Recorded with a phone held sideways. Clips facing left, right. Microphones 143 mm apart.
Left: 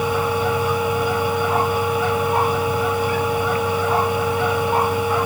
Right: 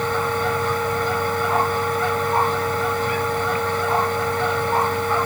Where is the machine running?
10° left (ahead or behind).